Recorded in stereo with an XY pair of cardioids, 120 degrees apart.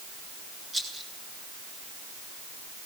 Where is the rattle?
25° right, 9 m.